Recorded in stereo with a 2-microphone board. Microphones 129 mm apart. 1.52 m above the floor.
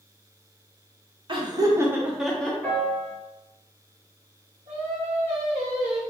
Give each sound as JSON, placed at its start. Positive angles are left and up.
{"t": 1.3, "sound": "laughter", "side_deg": -40, "distance_m": 1.1}
{"t": 2.6, "sound": "a piano", "side_deg": 10, "distance_m": 1.2}
{"t": 4.7, "sound": "singing", "side_deg": -55, "distance_m": 1.4}